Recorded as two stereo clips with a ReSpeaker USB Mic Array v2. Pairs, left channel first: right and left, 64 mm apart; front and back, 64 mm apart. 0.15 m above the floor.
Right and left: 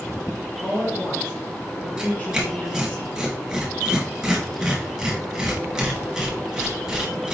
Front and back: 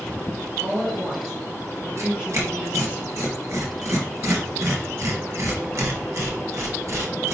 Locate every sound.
0.6 s a woman speaking: 80° right, 1.7 m; by 3.0 s 160° right, 1.4 m
2.0 s tearing paper: 170° left, 1.6 m